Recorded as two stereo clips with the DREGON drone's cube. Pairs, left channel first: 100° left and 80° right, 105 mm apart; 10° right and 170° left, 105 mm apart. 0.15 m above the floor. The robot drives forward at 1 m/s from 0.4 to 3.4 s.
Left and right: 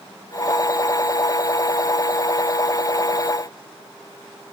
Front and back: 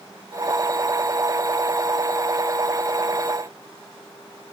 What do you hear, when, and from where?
Only background noise.